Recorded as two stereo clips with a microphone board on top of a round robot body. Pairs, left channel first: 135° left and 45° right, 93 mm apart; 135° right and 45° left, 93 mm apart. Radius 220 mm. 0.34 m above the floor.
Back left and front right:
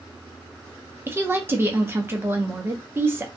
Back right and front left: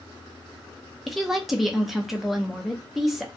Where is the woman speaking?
40° right, 1.1 m.